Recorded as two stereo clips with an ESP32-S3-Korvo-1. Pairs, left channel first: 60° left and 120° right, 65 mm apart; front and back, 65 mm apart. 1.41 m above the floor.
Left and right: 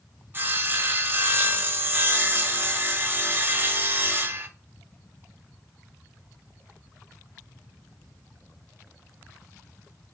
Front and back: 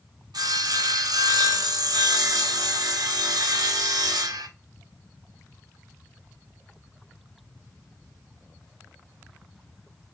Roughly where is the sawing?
Behind.